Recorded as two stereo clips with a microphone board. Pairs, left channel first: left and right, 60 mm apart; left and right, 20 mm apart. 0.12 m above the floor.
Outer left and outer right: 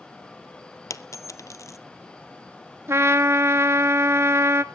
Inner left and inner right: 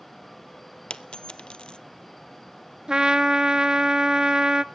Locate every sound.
0.9 s a dropped coin: 65° left (ahead or behind), 0.7 m
2.9 s a trumpet: 50° right (ahead or behind), 0.6 m